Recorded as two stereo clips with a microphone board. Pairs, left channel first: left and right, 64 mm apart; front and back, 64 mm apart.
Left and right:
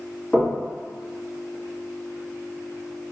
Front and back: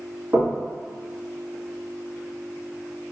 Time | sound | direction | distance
0.3 | knocking | 165° left | 0.9 m